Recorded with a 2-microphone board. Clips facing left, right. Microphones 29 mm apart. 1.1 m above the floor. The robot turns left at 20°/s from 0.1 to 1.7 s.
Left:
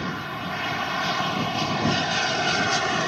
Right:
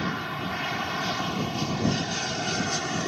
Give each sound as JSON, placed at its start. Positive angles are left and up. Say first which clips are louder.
{"t": 0.0, "sound": "an aircraft", "louder": "even", "azimuth_deg": -175}